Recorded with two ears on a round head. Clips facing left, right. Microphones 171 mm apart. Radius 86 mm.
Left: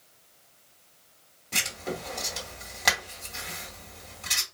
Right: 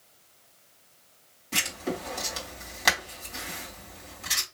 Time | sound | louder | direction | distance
1.5 | writing | right 2 dB | 5° right (ahead or behind) | 2.5 m